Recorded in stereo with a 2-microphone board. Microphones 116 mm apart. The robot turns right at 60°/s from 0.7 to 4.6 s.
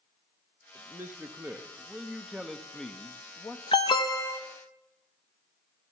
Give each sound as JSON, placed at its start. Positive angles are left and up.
{"t": 0.8, "sound": "a man speaking", "side_deg": -20, "distance_m": 0.7}
{"t": 3.7, "sound": "an alarm", "azimuth_deg": 100, "distance_m": 0.7}